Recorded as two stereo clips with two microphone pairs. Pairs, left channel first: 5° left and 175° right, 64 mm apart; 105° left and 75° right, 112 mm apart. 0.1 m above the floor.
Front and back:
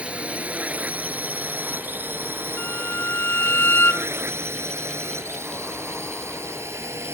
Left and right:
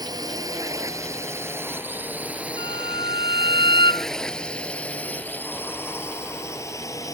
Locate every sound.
0.0 s a drone: 110° right; by 7.2 s 155° left
2.6 s a violin: 60° left